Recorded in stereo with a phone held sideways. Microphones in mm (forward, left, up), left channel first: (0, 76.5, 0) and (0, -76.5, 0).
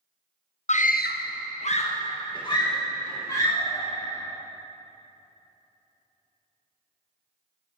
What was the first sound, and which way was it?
A scream, 45° left (ahead or behind).